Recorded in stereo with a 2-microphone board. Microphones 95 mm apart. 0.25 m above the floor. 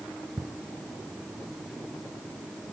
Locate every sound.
0.4 s ticking: 40° right (ahead or behind), 2 m